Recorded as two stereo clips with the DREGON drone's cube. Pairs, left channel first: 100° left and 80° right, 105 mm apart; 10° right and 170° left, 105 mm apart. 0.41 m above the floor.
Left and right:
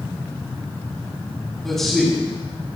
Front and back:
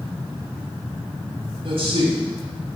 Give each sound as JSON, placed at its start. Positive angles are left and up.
{"t": 1.6, "sound": "a man speaking", "azimuth_deg": -170, "distance_m": 3.5}